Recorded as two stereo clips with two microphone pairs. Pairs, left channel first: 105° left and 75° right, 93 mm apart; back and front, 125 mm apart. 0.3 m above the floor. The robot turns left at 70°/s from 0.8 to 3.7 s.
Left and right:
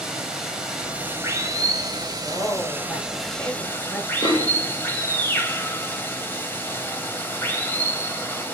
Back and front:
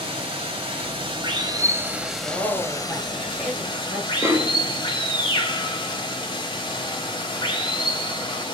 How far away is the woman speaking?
About 1.2 m.